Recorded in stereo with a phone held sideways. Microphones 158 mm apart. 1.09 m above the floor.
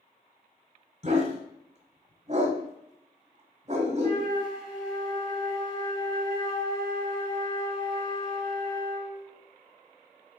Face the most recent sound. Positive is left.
turn(degrees=35)  # may be behind; listen again after turning